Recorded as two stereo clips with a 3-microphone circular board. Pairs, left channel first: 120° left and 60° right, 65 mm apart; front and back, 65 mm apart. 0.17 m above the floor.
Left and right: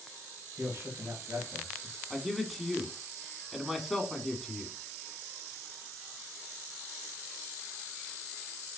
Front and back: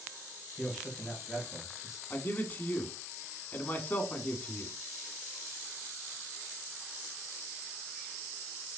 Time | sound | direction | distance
0.6 | a man speaking | 95° right | 2.5 m
2.1 | a man speaking | 30° left | 1.2 m